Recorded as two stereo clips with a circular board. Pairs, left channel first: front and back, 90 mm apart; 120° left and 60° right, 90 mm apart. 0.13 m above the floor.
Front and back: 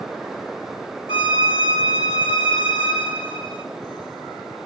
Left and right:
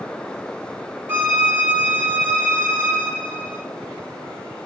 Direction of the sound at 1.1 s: 10° left.